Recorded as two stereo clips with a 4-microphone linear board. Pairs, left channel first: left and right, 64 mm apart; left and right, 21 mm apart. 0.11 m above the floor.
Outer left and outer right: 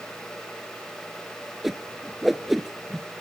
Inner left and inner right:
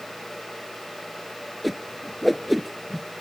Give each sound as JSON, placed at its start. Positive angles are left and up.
{"t": 1.6, "sound": "a whoosh", "side_deg": -5, "distance_m": 0.8}